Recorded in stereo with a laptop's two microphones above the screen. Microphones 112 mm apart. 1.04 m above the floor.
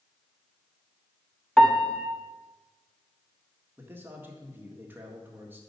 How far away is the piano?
About 0.9 m.